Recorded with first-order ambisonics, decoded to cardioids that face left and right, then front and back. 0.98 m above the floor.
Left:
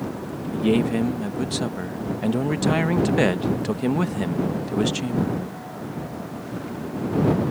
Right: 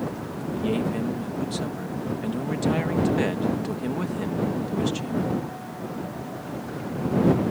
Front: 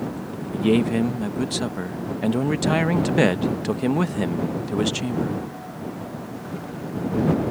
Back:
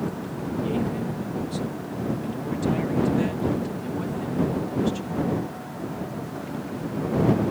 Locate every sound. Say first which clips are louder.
0.5 s a man speaking: left 5 dB, front 8 dB; 25° left